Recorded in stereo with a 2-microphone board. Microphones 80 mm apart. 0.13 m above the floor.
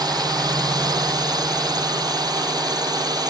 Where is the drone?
60° right (ahead or behind).